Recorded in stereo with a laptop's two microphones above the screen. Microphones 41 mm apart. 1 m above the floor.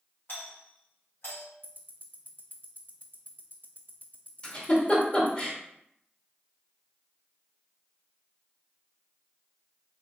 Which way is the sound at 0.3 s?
65° left (ahead or behind).